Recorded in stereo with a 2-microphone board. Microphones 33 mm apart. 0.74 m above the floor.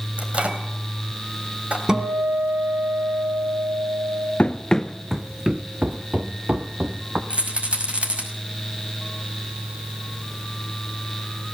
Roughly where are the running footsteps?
Left.